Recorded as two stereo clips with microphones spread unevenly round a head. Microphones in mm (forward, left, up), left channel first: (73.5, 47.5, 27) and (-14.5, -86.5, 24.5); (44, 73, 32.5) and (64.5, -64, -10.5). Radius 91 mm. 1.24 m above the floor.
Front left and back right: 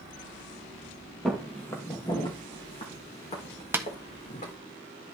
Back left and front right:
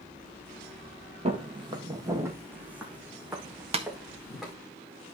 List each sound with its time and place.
1.2 s footsteps: 30° right, 1.7 m; by 4.5 s 15° left, 5 m
3.7 s tapping: 45° right, 1.4 m